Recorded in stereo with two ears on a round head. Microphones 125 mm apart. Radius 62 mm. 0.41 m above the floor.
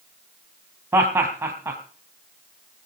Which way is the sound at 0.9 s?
20° right (ahead or behind).